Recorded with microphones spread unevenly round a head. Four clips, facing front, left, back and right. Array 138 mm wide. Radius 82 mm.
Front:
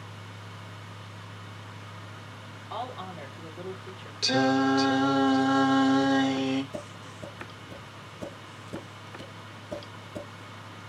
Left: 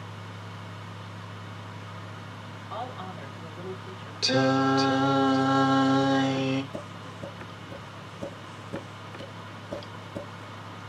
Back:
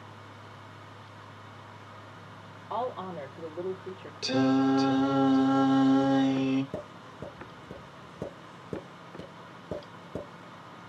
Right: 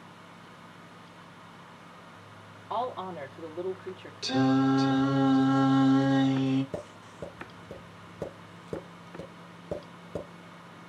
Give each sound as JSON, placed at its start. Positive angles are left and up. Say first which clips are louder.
{"t": 2.7, "sound": "a woman speaking", "louder": "right 5 dB, back 4 dB", "azimuth_deg": -155, "distance_m": 2.0}
{"t": 4.2, "sound": "singing", "louder": "left 1 dB, front 1 dB", "azimuth_deg": 100, "distance_m": 1.2}
{"t": 6.7, "sound": "tapping", "louder": "left 1 dB, even", "azimuth_deg": -150, "distance_m": 4.0}